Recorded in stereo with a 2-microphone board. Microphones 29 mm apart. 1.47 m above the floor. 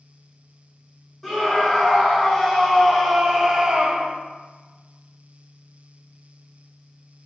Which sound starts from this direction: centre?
A scream, at 1.2 s.